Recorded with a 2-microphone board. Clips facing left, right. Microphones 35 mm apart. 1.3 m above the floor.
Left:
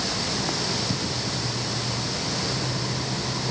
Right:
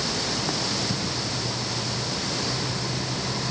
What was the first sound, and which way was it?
Only background noise.